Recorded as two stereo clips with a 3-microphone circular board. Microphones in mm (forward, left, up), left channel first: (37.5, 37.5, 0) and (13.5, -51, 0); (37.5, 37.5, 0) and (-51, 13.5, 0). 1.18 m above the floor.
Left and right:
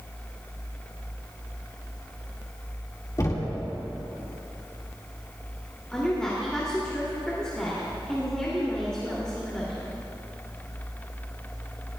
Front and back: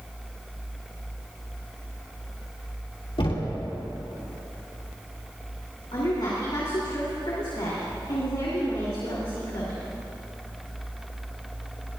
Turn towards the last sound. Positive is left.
turn(degrees=-5)